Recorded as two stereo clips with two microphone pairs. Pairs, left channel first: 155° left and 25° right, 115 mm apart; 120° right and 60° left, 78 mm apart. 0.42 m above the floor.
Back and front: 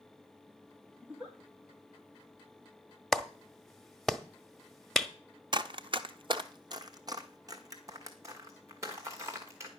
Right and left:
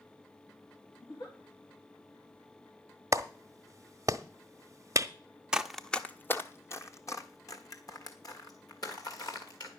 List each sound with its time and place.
1.0 s a giggle: 105° right, 4 m
3.1 s a clap: 70° left, 0.7 m
5.5 s running footsteps: 10° right, 0.5 m; by 9.7 s 90° right, 2.5 m